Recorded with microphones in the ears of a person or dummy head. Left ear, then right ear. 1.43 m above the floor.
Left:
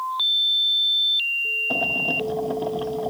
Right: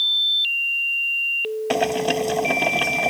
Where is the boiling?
65° right (ahead or behind).